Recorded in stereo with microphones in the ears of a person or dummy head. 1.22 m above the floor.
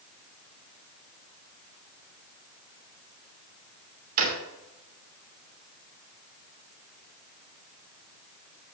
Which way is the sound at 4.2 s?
45° right (ahead or behind).